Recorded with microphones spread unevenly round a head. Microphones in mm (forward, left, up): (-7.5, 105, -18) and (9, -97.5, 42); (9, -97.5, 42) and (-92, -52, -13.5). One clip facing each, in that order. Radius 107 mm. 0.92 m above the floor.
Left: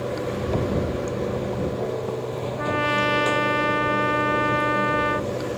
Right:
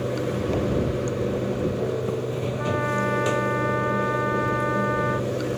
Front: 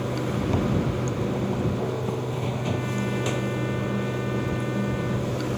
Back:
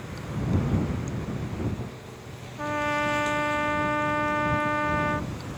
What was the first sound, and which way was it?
Running water, 10° right.